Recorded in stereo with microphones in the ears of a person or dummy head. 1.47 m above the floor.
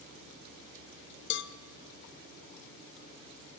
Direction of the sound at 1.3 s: 55° left (ahead or behind).